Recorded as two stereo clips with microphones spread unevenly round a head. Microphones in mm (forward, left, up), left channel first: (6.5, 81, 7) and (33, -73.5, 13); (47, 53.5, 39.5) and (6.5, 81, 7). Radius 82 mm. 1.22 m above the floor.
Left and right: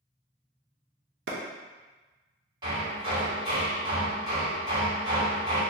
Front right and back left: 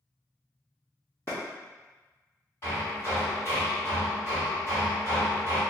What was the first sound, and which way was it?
A clap, 80° right.